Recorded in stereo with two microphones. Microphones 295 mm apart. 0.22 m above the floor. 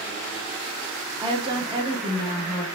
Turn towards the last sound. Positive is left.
turn(degrees=-15)  # may be behind; listen again after turning